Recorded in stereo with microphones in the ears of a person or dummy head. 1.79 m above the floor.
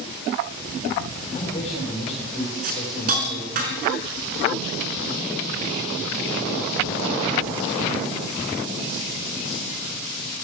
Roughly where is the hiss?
Right.